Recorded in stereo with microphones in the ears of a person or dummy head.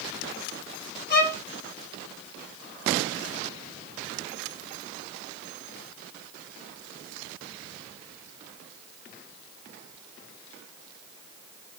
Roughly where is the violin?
Left.